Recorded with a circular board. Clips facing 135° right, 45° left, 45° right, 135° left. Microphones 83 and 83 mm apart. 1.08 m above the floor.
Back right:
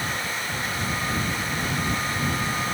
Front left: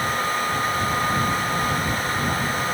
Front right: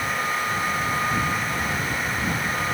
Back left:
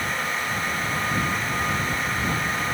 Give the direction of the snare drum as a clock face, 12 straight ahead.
No snare drum in this recording.